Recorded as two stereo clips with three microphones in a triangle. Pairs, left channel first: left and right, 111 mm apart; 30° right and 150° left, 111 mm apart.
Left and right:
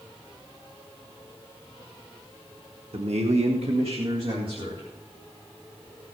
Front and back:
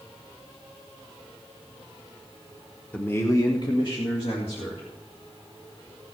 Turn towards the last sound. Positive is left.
turn(degrees=-55)